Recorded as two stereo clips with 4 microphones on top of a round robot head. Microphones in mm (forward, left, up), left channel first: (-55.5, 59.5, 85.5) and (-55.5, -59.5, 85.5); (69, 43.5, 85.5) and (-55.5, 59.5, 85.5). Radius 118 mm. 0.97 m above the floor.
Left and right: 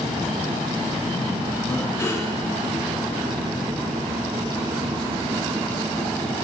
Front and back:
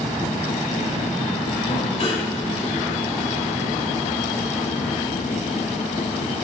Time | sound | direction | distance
1.7 | breathing | 25° left | 1.9 m